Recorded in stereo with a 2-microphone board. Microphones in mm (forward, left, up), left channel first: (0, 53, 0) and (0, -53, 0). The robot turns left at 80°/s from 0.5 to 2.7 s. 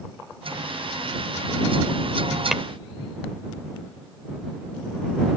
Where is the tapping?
5° right (ahead or behind); by 2.6 s 10° right (ahead or behind).